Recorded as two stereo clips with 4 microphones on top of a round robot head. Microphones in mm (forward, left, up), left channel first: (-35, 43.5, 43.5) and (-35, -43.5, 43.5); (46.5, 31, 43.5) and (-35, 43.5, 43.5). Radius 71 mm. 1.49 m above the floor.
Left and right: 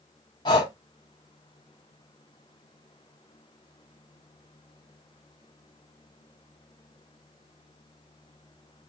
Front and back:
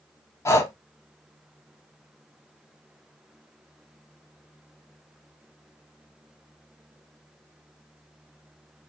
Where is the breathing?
45° left, 0.9 m.